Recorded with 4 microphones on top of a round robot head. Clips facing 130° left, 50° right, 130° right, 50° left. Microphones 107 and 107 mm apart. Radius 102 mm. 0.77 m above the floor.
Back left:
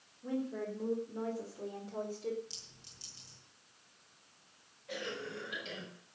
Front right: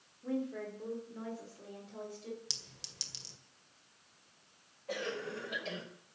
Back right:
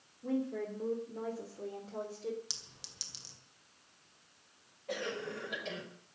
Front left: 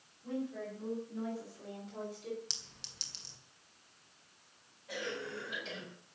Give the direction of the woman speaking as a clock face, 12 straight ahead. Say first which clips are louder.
Even, back right 4 dB; 5 o'clock.